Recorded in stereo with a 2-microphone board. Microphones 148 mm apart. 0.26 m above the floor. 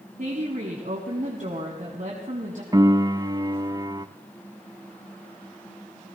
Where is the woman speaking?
60° right (ahead or behind), 1.7 m.